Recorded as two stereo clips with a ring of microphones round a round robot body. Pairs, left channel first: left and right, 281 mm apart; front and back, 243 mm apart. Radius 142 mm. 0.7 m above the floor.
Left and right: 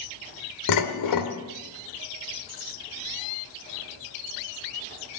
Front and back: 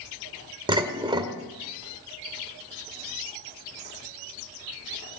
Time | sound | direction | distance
0.7 | dishes clattering | 110° left | 1.7 m